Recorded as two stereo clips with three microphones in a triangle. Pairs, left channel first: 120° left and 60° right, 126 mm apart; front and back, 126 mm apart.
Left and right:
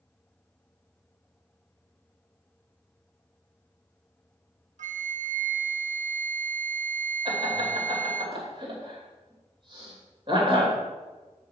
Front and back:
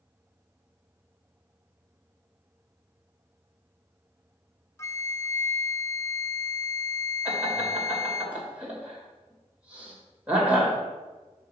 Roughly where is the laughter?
Right.